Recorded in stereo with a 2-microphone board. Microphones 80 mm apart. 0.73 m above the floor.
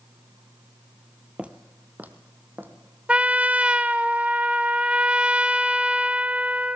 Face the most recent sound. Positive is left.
turn(degrees=-15)  # may be behind; listen again after turning